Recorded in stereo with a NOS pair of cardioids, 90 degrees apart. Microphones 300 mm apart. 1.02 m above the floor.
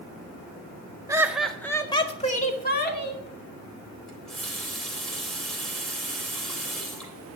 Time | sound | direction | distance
1.1 | laughter | 10° right | 1.6 m
4.1 | a running tap | straight ahead | 3.5 m